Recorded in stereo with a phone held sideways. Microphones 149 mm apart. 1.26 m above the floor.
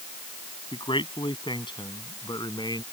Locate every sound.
0.7 s a man speaking: 35° left (ahead or behind); by 2.8 s 25° left (ahead or behind)